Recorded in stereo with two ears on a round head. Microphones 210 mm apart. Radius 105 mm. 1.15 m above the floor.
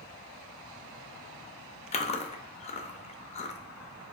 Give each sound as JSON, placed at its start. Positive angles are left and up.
{"t": 1.9, "sound": "chewing", "side_deg": 25, "distance_m": 0.5}